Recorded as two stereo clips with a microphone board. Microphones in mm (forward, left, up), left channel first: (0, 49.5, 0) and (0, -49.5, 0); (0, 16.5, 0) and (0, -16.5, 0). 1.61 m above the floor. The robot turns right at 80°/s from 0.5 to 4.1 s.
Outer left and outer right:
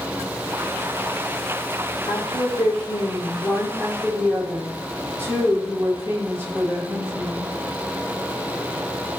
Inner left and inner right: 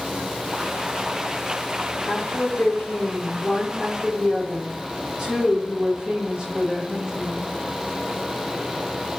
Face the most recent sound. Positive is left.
turn(degrees=-155)